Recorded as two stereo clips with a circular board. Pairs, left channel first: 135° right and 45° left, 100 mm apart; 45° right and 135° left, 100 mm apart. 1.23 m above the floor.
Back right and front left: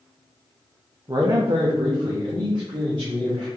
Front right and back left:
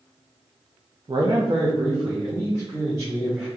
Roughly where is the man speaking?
Left.